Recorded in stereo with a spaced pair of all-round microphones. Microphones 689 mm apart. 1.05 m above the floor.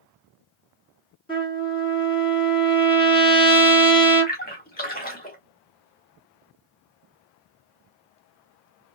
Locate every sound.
1.3 s a trumpet: 5° left (ahead or behind), 2.5 m
4.3 s a splash: 15° left (ahead or behind), 1.8 m